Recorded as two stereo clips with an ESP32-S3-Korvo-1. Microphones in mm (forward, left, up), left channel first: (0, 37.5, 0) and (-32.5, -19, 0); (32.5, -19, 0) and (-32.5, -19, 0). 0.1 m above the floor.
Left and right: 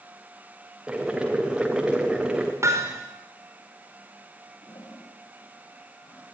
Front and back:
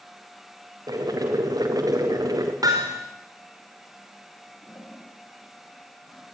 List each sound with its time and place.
0.9 s boiling: 165° left, 4.5 m
2.6 s hammering: 160° right, 5 m
4.6 s a toilet flushing: 55° left, 8 m